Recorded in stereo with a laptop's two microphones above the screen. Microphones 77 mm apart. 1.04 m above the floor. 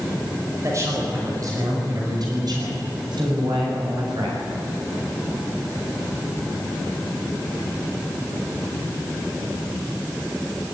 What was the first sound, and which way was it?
A man speaking, 40° right (ahead or behind).